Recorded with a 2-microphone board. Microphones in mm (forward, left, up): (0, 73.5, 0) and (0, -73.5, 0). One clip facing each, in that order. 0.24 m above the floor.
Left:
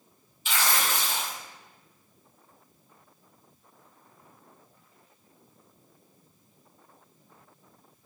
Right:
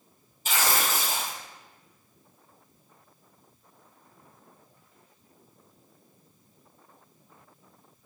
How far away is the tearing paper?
About 1.4 m.